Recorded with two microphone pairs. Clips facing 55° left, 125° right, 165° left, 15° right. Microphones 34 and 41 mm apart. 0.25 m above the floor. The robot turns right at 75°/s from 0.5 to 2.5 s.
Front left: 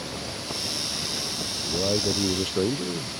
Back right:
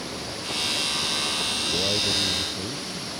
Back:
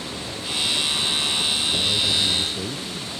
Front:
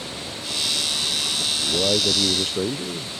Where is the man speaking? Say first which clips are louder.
Front left 3 dB, front 1 dB; 40° right; by 3.1 s 25° left.